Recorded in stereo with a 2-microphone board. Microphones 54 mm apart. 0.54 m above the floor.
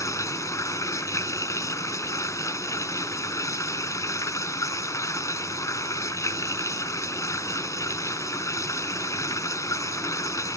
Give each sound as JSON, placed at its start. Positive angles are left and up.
{"t": 0.0, "sound": "running water", "side_deg": 70}